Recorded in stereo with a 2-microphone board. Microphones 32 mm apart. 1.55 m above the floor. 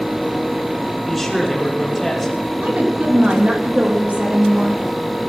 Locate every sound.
1.1 s a man speaking: centre (ahead or behind), 5.5 m
2.6 s a woman speaking: 50° right (ahead or behind), 3 m